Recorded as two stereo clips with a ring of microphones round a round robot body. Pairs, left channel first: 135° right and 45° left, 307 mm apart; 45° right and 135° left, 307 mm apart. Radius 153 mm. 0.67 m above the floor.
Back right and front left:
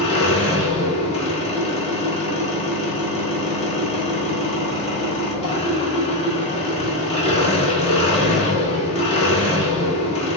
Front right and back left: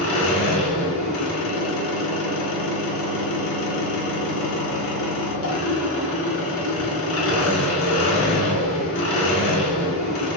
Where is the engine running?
70° right, 1.0 m.